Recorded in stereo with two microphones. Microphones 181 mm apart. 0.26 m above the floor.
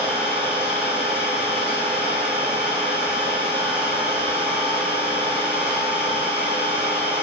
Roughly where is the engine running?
Left.